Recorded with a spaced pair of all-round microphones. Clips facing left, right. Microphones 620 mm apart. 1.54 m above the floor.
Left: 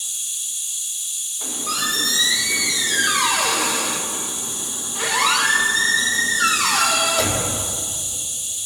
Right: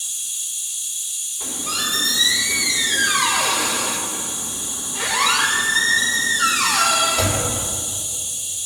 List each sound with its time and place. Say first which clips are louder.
0.0 s an insect: even; 5° left (ahead or behind), 2.5 m
1.4 s a squeak: even; 80° right, 4 m